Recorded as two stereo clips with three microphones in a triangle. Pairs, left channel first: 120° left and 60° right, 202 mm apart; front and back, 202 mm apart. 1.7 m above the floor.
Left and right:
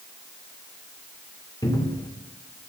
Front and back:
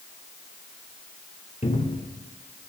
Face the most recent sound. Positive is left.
turn(degrees=50)